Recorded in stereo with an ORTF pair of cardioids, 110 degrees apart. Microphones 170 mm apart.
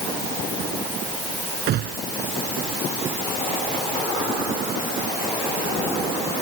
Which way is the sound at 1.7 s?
70° right.